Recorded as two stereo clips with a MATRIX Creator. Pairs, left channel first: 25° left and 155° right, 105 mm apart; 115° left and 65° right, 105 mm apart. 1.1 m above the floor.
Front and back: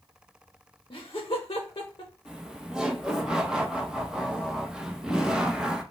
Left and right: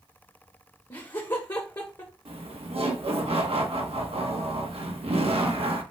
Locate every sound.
0.9 s laughter: 65° left, 1.0 m
2.2 s laughter: 75° right, 1.2 m